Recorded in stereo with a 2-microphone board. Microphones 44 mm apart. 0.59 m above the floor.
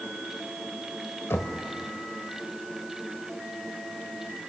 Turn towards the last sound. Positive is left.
turn(degrees=65)  # may be behind; listen again after turning